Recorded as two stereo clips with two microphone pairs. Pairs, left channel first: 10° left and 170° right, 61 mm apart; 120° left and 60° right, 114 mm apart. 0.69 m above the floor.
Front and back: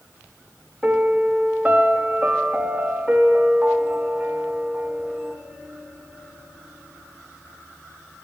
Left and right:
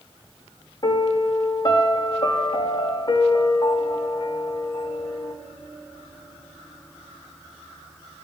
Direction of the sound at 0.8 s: 130° left.